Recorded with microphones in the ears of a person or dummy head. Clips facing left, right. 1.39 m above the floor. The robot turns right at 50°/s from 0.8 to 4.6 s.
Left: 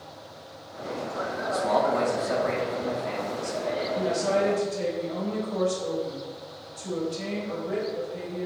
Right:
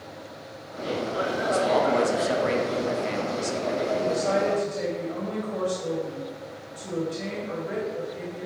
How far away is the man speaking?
About 0.5 m.